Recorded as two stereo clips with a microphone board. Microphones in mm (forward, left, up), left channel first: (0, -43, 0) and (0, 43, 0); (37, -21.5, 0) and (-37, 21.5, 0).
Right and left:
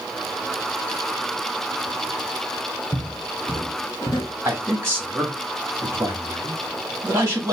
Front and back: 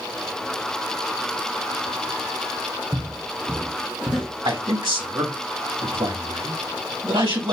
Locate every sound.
2.9 s footsteps: 165° right, 2 m; by 4.3 s 100° right, 1.4 m
4.5 s a man speaking: 150° left, 2 m